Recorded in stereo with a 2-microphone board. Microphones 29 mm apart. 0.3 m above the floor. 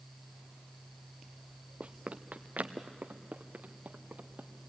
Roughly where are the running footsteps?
Right.